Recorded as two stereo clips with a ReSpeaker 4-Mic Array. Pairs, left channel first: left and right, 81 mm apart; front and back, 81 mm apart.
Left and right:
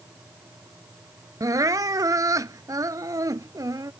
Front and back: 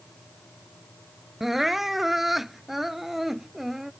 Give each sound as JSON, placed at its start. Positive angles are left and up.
{"t": 1.4, "sound": "crying", "azimuth_deg": -95}